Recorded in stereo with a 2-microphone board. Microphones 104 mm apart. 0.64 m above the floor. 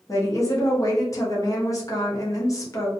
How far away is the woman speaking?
About 0.8 m.